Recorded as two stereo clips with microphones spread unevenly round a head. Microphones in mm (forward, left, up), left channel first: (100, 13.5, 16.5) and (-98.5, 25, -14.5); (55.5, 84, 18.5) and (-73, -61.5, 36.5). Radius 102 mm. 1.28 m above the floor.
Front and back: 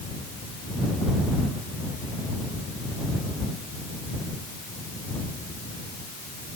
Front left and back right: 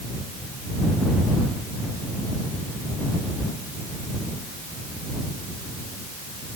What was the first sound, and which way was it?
Only background noise.